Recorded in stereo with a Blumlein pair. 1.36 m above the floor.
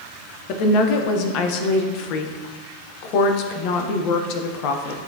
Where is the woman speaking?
40° left, 0.8 m.